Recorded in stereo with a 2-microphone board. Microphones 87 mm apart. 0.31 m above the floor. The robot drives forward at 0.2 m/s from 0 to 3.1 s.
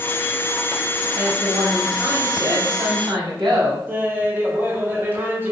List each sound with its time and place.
1.1 s a woman speaking: 55° right (ahead or behind), 1.9 m; by 3.8 s 60° right (ahead or behind), 1.8 m
3.9 s laughter: 25° right (ahead or behind), 0.9 m